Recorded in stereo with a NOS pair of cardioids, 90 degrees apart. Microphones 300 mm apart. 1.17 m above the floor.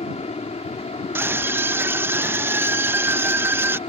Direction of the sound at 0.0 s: 20° left.